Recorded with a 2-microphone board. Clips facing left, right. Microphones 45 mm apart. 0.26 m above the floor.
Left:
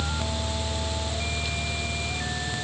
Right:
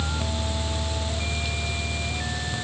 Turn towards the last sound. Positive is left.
No sound to turn to.